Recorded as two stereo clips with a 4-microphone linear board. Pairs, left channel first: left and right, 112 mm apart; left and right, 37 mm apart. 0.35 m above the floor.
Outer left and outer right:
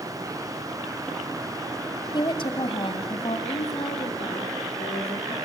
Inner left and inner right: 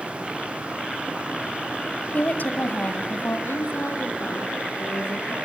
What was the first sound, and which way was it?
A woman speaking, 45° left (ahead or behind).